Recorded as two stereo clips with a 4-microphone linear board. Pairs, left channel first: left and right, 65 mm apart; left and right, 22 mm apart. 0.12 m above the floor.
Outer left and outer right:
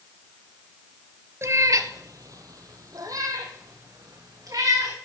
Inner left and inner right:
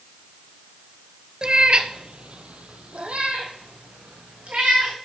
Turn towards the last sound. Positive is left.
turn(degrees=-65)  # may be behind; listen again after turning